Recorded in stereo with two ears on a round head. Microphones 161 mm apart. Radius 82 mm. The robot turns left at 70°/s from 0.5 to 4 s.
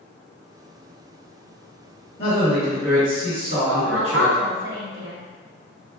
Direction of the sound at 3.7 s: 45° right (ahead or behind).